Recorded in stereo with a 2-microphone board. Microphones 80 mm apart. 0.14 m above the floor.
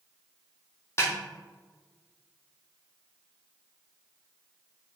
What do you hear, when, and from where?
1.0 s a snare drum: 35° left (ahead or behind), 2.5 m